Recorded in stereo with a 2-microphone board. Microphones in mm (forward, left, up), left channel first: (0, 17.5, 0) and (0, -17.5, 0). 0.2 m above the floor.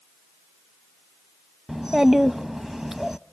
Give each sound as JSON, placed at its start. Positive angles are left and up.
{"t": 1.7, "sound": "a child speaking", "side_deg": -10, "distance_m": 0.6}